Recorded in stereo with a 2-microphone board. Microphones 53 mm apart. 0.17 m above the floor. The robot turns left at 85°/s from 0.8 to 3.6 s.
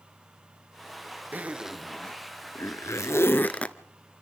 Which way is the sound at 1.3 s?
35° right (ahead or behind).